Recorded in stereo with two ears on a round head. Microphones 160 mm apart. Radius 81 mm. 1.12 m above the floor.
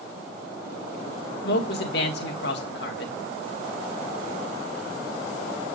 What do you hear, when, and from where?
1.4 s a man speaking: 60° left (ahead or behind), 1.8 m